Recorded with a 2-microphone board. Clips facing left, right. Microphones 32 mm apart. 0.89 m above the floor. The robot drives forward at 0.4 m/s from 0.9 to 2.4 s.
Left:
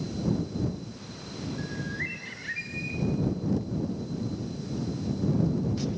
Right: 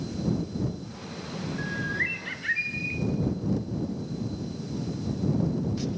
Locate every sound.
1.6 s a bird: 25° right (ahead or behind), 3 m; by 3.0 s 30° right (ahead or behind), 2.5 m